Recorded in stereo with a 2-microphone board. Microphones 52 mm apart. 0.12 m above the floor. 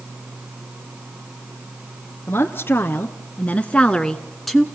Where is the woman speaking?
45° left (ahead or behind), 1.4 m; by 4.7 s centre (ahead or behind), 1.1 m.